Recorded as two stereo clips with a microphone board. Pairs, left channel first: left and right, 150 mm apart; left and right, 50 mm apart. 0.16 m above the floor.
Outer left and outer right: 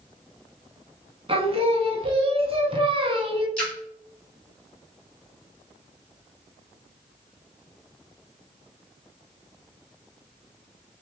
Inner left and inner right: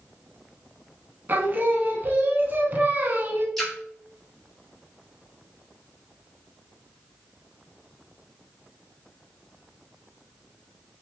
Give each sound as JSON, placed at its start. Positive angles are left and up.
{"t": 1.3, "sound": "singing", "side_deg": -40, "distance_m": 0.6}
{"t": 3.6, "sound": "a splash", "side_deg": 5, "distance_m": 1.3}